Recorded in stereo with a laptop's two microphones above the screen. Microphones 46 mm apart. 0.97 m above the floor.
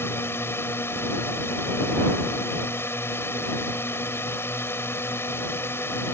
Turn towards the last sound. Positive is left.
turn(degrees=55)  # may be behind; listen again after turning